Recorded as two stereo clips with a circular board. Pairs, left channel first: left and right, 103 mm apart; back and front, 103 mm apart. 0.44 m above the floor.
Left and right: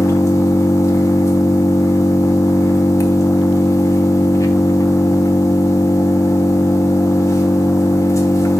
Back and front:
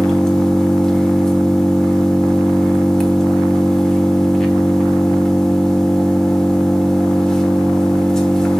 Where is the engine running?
100° left, 1.0 m.